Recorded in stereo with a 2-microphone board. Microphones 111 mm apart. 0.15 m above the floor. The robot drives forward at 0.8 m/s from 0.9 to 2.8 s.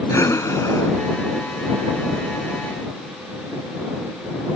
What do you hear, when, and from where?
0.1 s breathing: 30° left (ahead or behind); by 3.0 s 15° left (ahead or behind)